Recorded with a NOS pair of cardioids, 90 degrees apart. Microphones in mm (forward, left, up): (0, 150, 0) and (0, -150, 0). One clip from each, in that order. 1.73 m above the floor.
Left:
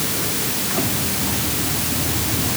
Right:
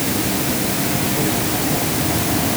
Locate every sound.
Only background noise.